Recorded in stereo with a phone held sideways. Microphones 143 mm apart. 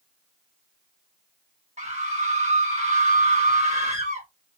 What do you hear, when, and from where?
1.8 s a scream: 55° right (ahead or behind), 2 m